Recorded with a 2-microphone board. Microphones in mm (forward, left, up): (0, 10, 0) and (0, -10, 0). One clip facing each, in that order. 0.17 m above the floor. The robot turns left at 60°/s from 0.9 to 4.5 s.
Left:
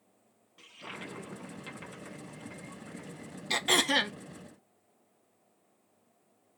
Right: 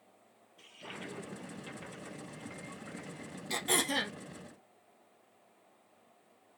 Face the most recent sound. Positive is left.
turn(degrees=50)